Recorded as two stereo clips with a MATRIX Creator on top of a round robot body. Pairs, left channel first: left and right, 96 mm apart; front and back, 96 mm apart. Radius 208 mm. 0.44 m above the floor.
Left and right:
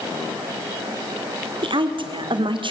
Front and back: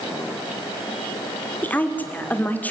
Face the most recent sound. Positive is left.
turn(degrees=-70)